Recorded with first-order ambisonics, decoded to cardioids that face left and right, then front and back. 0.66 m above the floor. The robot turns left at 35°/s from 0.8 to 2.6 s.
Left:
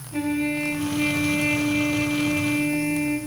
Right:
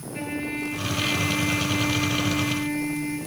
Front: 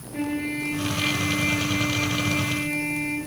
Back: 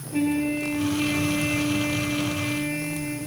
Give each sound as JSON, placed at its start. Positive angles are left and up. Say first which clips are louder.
{"t": 0.1, "sound": "a trumpet", "louder": "left 5 dB, back 3 dB", "azimuth_deg": 120, "distance_m": 4.5}